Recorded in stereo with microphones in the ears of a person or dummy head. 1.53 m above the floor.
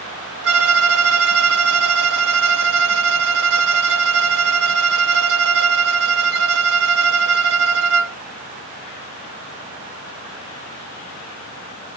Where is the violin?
60° right (ahead or behind), 0.7 m.